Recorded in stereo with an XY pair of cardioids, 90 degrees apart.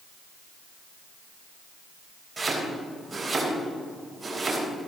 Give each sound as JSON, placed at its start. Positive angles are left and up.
{"t": 2.4, "sound": "chopping", "azimuth_deg": -25, "distance_m": 4.0}